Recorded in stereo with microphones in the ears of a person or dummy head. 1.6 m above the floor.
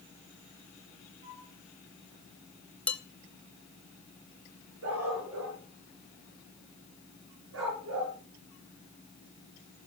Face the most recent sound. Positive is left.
turn(degrees=-75)  # may be behind; listen again after turning